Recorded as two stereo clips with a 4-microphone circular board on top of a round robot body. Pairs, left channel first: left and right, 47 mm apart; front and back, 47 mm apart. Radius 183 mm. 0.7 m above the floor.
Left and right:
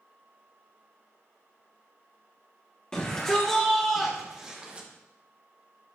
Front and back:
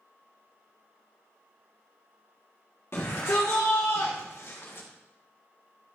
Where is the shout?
20° left, 1.8 m; by 4.9 s 30° right, 1.4 m.